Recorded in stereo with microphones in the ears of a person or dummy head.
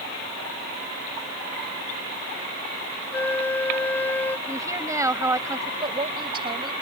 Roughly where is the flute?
Centre.